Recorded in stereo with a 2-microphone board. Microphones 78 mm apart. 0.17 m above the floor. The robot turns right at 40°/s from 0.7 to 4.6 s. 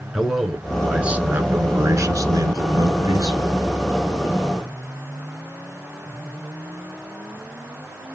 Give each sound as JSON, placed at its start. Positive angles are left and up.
{"t": 0.1, "sound": "a man speaking", "azimuth_deg": -175, "distance_m": 1.8}